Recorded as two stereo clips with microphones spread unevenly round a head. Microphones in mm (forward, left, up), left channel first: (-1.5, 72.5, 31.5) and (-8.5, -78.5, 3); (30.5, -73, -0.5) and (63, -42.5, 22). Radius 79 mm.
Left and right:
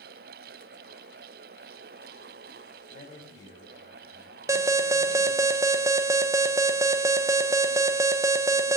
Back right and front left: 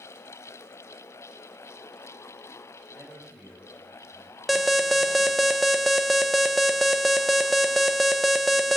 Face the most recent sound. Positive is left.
turn(degrees=-105)